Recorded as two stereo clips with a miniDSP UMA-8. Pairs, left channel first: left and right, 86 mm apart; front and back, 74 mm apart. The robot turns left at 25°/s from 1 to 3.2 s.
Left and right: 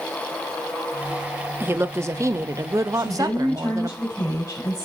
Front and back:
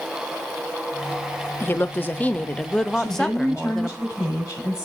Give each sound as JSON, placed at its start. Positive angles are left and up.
{"t": 1.6, "sound": "a woman speaking", "azimuth_deg": -40, "distance_m": 0.6}
{"t": 2.9, "sound": "a woman speaking", "azimuth_deg": 50, "distance_m": 6.0}